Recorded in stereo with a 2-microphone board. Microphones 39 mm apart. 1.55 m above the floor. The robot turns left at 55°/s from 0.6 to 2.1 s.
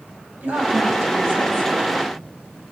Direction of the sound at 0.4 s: 55° right.